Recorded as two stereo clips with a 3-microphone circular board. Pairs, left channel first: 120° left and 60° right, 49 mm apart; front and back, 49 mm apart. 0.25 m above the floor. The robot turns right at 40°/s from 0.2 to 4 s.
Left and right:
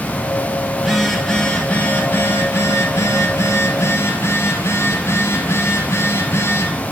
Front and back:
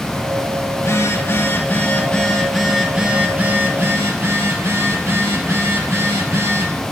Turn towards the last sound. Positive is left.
turn(degrees=145)